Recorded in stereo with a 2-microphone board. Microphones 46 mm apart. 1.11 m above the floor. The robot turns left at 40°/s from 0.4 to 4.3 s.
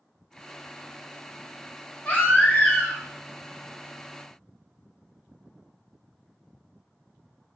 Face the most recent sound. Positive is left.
turn(degrees=50)